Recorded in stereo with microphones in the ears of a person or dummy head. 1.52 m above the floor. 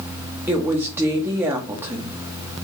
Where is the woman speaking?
15° right (ahead or behind), 1.8 m.